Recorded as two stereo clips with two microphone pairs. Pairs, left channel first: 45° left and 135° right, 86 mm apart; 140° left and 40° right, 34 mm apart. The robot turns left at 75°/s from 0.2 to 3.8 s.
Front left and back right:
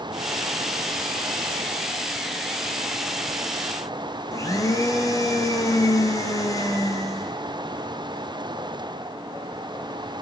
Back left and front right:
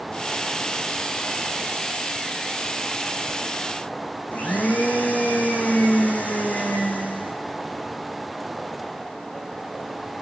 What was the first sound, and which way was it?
A blender, 95° left.